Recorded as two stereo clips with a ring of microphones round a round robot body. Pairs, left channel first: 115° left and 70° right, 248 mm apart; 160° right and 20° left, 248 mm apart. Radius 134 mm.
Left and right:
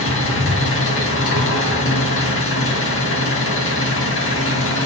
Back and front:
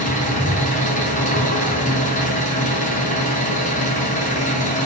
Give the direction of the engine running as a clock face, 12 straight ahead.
7 o'clock.